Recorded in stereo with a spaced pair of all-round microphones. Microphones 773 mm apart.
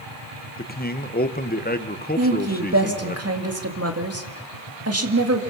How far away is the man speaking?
About 1.1 m.